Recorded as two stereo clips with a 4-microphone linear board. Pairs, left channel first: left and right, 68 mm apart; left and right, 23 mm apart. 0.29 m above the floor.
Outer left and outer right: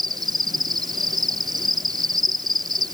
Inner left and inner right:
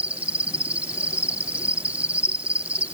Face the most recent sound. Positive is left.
turn(degrees=-80)